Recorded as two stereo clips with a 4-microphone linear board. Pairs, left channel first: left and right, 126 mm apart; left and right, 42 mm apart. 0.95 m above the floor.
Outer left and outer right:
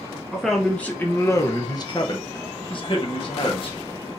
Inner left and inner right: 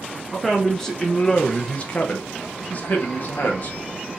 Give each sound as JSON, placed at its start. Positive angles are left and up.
{"t": 0.3, "sound": "a man speaking", "side_deg": -5, "distance_m": 0.8}